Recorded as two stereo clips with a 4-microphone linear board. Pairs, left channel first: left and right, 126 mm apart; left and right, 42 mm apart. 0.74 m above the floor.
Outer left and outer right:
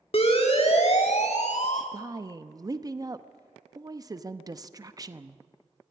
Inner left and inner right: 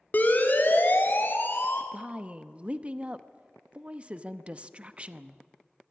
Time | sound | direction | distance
0.1 | a siren | 50° left (ahead or behind) | 2.5 m
1.9 | a woman speaking | 30° right (ahead or behind) | 0.7 m